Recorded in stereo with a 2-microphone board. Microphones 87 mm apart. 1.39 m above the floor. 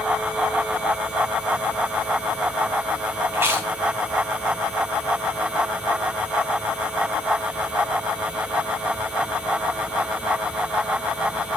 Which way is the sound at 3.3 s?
30° right (ahead or behind).